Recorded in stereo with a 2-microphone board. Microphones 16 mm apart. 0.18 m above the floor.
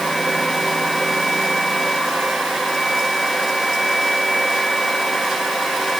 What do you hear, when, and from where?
Only background noise.